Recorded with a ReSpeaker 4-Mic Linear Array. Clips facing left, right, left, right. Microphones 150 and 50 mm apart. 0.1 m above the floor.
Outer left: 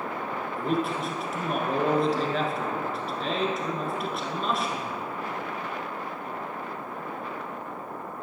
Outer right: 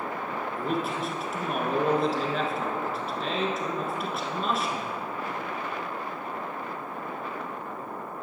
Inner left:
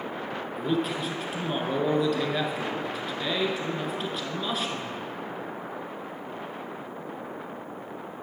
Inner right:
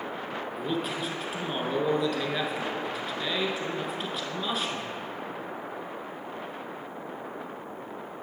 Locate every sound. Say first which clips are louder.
0.6 s a man speaking: outer left 3 dB, inner left 4 dB; centre (ahead or behind), 1.1 m